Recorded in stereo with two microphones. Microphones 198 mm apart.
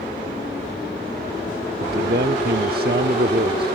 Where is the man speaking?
55° right (ahead or behind).